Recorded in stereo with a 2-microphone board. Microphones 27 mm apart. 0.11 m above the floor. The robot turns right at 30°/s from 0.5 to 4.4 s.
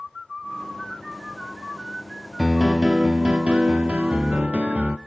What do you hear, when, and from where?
2.4 s a piano: 165° right, 0.9 m; by 5.0 s 105° right, 0.9 m